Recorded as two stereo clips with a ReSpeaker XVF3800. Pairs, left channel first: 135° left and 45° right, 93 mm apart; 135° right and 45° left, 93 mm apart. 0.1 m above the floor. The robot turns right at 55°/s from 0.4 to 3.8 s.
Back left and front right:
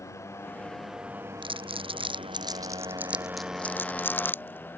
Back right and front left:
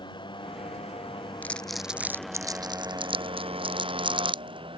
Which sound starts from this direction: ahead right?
Crumpling, at 1.4 s.